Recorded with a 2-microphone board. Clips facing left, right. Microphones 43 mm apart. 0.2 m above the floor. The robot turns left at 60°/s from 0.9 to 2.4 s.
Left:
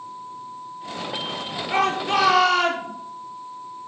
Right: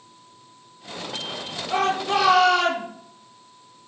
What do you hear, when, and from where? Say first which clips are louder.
1.7 s a shout: left 1 dB; 60° left, 5 m; by 2.9 s 20° left, 5 m